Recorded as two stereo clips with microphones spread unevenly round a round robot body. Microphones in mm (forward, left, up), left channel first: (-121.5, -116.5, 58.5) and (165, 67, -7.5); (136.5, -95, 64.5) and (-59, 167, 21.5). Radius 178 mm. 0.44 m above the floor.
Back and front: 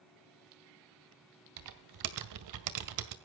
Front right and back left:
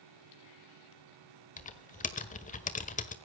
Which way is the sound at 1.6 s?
15° left.